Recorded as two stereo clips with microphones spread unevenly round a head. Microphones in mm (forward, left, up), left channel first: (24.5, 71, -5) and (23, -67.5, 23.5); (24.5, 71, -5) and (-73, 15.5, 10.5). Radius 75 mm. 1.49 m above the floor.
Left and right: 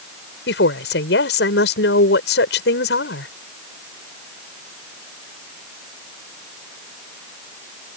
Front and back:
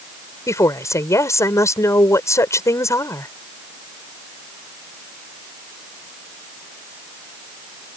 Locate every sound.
0.5 s a woman speaking: 95° left